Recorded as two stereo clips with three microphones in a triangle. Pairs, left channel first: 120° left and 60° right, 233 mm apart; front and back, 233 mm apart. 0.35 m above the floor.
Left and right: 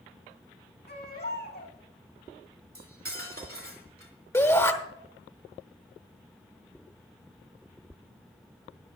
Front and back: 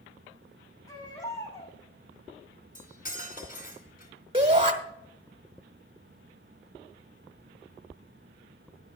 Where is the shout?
170° left, 1.1 m.